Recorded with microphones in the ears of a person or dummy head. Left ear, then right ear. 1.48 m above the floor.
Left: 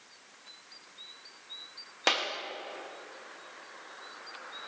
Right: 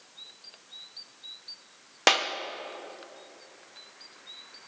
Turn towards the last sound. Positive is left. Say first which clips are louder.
# right 5 dB
turn(degrees=-15)  # may be behind; listen again after turning